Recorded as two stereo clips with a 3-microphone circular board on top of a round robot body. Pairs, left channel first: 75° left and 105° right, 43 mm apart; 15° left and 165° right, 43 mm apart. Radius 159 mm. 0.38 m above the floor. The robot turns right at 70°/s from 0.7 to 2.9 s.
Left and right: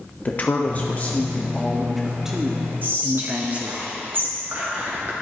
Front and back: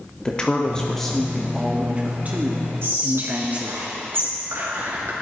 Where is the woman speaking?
75° left, 1.0 m; by 3.8 s 135° right, 1.0 m.